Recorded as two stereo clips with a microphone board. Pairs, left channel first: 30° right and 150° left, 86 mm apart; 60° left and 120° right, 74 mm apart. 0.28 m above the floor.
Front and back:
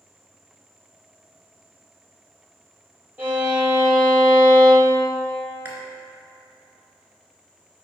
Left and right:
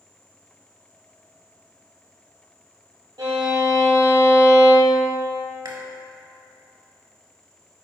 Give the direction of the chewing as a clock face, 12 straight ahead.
5 o'clock.